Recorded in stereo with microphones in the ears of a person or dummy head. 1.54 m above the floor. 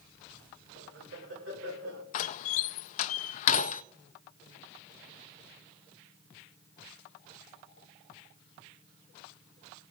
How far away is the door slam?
About 0.5 m.